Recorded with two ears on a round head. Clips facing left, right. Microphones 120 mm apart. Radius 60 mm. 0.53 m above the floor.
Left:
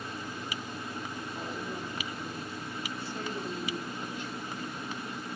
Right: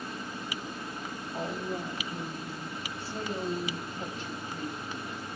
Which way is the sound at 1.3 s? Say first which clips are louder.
Right 6 dB; 30° right (ahead or behind).